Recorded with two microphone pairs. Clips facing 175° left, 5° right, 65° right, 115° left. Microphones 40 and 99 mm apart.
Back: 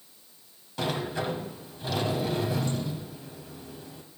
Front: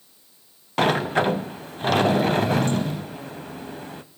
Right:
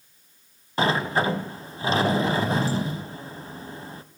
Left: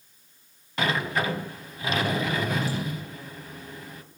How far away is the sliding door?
About 0.5 m.